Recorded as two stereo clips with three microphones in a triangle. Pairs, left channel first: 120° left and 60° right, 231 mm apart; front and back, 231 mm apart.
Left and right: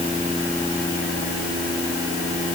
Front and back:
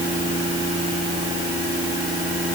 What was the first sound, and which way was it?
Only background noise.